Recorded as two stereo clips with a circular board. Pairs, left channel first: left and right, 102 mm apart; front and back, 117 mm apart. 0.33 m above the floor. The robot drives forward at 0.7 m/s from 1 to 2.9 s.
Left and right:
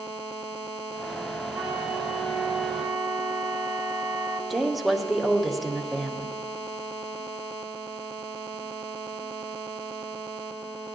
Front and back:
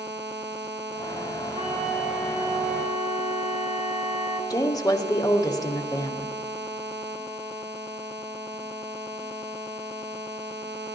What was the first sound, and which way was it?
A flute, 170° right.